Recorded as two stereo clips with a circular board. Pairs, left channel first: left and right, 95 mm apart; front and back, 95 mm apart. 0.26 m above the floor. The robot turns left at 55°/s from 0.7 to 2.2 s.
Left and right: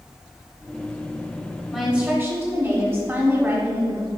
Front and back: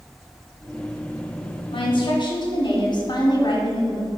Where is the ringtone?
I don't hear a ringtone.